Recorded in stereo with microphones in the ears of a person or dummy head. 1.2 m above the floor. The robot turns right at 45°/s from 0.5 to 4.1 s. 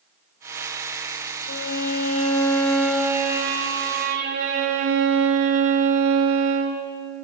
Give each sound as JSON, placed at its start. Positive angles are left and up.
{"t": 1.5, "sound": "a violin", "azimuth_deg": 125, "distance_m": 1.1}